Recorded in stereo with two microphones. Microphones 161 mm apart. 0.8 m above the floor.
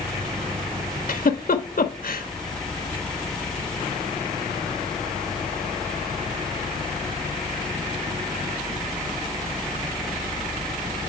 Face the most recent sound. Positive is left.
turn(degrees=65)  # may be behind; listen again after turning